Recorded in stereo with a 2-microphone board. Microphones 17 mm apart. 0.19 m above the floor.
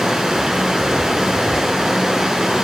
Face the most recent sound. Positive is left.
turn(degrees=-45)  # may be behind; listen again after turning